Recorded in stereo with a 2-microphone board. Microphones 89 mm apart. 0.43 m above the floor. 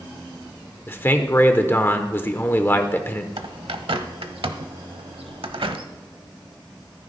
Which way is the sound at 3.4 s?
80° right.